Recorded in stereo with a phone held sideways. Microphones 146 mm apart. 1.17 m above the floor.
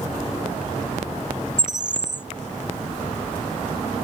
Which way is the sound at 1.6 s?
65° right (ahead or behind).